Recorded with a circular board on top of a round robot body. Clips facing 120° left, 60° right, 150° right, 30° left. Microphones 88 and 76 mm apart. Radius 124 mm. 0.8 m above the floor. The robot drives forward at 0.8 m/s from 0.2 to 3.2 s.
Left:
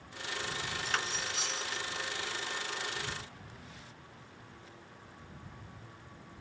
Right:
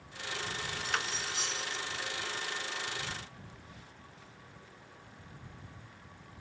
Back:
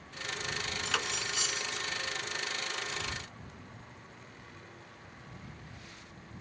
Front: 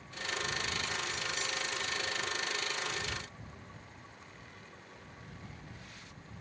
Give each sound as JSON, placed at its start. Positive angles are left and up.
{"t": 0.8, "sound": "cutlery clinking", "azimuth_deg": -145}